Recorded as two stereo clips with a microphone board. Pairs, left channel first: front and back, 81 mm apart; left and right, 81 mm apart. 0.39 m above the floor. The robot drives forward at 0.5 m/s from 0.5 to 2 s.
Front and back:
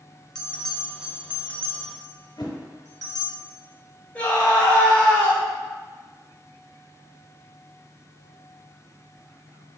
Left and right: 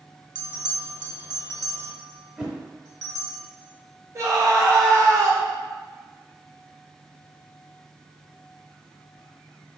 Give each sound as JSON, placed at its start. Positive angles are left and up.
{"t": 0.3, "sound": "a bell", "azimuth_deg": -80, "distance_m": 0.8}
{"t": 2.4, "sound": "a whoosh", "azimuth_deg": -15, "distance_m": 0.9}
{"t": 4.2, "sound": "a scream", "azimuth_deg": -65, "distance_m": 1.4}